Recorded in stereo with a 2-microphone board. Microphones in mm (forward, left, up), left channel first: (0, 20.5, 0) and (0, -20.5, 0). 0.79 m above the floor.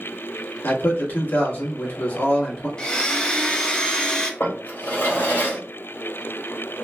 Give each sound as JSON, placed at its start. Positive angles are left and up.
{"t": 0.6, "sound": "a man speaking", "side_deg": 55, "distance_m": 1.5}
{"t": 2.8, "sound": "a blender", "side_deg": 20, "distance_m": 0.6}
{"t": 4.4, "sound": "a drawer", "side_deg": 65, "distance_m": 1.5}